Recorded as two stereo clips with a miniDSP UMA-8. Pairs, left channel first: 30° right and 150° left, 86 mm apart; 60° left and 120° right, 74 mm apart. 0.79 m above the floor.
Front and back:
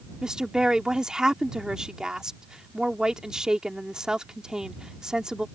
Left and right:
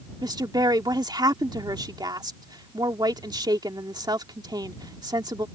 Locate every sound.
0.2 s a woman speaking: 130° right